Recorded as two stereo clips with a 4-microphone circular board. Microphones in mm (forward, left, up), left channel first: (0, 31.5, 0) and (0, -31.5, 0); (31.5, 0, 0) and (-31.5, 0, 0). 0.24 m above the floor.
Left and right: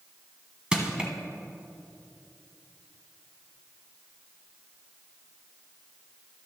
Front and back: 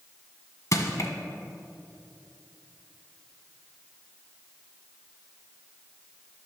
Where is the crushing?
15° right, 1.0 m.